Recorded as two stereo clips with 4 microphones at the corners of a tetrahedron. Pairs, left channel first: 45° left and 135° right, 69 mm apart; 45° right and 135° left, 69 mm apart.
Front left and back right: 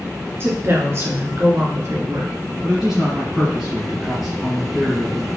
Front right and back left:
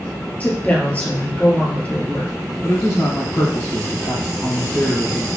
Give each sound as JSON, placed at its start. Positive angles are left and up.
{"t": 0.4, "sound": "a woman speaking", "azimuth_deg": -105, "distance_m": 1.5}
{"t": 2.6, "sound": "a man speaking", "azimuth_deg": -55, "distance_m": 1.9}